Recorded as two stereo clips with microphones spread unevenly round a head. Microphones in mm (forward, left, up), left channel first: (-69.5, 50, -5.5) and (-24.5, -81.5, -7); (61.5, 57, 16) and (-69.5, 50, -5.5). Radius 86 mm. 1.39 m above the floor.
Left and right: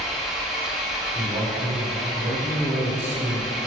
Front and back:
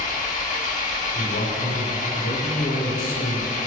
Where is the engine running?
15° left, 2.0 m.